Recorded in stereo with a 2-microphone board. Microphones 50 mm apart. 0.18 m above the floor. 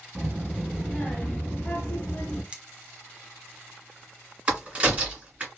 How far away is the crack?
About 1.9 m.